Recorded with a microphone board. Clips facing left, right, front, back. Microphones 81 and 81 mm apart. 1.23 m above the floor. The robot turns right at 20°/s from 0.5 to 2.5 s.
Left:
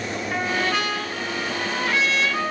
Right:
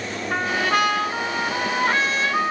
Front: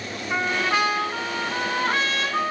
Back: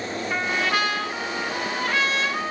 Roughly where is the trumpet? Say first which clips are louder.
Right 3 dB, front 2 dB; right.